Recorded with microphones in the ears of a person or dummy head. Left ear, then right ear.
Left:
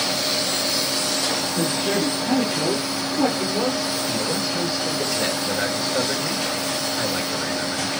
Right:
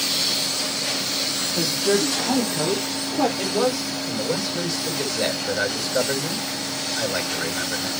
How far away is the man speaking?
About 7 m.